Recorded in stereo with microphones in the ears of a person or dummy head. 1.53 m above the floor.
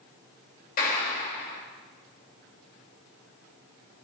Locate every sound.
0.8 s a clap: 50° left (ahead or behind), 3 m